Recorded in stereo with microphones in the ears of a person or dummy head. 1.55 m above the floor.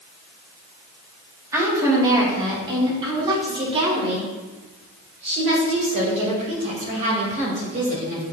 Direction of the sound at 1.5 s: 20° right (ahead or behind).